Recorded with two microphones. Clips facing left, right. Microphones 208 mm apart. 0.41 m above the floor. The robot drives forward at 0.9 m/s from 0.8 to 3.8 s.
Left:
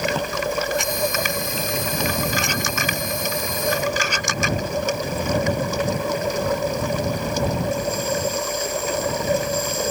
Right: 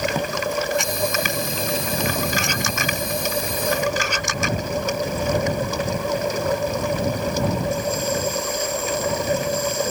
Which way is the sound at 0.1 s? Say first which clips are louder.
Even; 10° right (ahead or behind).